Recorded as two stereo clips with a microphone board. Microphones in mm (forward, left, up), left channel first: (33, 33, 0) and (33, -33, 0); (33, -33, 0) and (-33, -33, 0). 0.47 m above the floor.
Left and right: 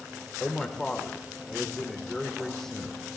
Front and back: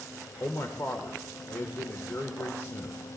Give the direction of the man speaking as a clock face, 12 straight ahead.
12 o'clock.